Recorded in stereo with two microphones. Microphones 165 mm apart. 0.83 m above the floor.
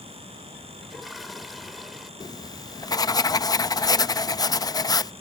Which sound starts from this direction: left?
Writing, at 2.2 s.